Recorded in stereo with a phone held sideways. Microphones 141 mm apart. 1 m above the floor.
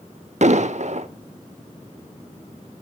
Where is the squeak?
No squeak in this recording.